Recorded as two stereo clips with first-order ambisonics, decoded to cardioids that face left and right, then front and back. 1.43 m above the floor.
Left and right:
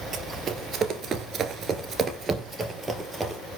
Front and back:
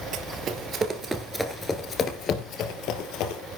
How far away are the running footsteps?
About 2 m.